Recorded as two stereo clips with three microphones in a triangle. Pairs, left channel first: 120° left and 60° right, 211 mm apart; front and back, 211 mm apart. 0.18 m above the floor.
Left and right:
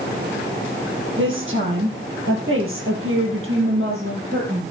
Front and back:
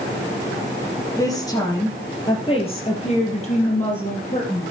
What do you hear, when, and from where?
1.2 s a woman speaking: 75° right, 4 m; by 4.7 s 45° right, 5 m